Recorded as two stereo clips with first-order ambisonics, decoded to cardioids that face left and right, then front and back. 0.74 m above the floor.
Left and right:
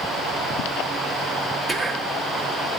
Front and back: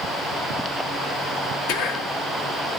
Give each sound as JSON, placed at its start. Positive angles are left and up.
{"t": 1.7, "sound": "whispering", "azimuth_deg": -5, "distance_m": 1.5}